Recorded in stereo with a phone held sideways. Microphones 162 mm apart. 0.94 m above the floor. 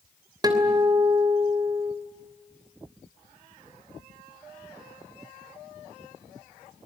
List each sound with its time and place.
0.4 s a guitar: 25° right (ahead or behind), 3 m